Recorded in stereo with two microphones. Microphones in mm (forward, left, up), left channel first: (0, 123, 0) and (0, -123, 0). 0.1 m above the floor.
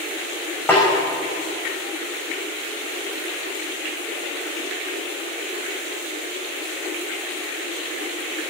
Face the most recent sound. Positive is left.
turn(degrees=10)  # may be behind; listen again after turning